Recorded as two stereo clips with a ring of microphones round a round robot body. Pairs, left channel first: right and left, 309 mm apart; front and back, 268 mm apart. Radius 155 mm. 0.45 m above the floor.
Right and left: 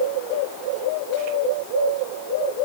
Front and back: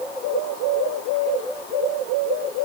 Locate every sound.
Only background noise.